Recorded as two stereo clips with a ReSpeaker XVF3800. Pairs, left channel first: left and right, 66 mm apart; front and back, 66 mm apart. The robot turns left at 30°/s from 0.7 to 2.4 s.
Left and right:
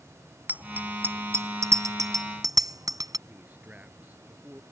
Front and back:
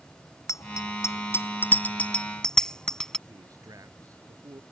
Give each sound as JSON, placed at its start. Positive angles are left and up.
{"t": 0.5, "sound": "a bicycle bell", "azimuth_deg": -25}
{"t": 3.3, "sound": "a man speaking", "azimuth_deg": -155}